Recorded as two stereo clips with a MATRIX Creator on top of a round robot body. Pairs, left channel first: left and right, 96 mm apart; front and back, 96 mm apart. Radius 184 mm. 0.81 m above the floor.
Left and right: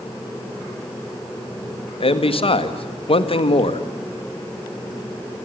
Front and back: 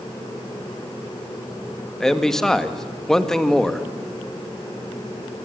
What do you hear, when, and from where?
2.0 s a man speaking: 85° left, 2 m